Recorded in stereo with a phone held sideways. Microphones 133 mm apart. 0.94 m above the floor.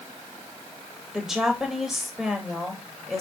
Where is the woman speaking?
5° right (ahead or behind), 3.5 m.